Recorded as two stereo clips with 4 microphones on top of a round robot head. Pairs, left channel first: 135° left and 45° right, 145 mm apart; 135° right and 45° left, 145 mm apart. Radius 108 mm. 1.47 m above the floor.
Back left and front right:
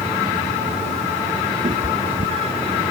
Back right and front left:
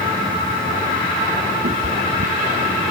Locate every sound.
1.6 s a cat meowing: 10° left; by 2.8 s 5° left